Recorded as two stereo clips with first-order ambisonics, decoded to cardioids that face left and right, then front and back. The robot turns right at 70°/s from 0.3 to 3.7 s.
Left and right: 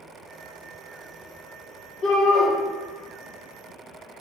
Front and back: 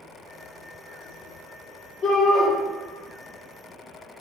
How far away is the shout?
About 1.0 m.